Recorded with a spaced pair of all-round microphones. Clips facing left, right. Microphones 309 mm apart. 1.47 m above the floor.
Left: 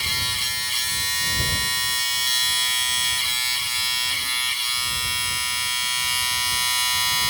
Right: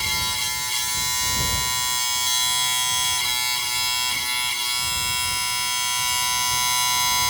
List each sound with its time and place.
0.0 s a machine running: 60° right (ahead or behind)